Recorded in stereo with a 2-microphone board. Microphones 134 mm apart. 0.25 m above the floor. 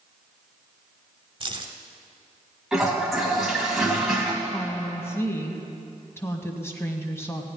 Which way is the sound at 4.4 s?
20° left (ahead or behind).